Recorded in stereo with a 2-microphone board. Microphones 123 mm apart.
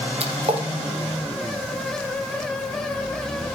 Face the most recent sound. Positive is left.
turn(degrees=-55)  # may be behind; listen again after turning